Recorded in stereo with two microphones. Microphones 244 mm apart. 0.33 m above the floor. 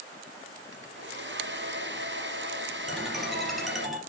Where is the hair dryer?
50° right (ahead or behind), 1.1 m.